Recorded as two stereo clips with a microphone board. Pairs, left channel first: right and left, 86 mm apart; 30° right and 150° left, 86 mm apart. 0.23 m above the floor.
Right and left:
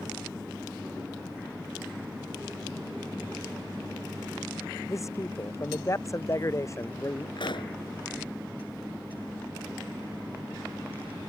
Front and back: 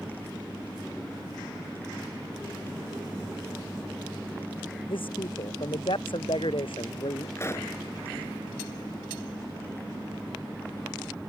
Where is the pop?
85° right.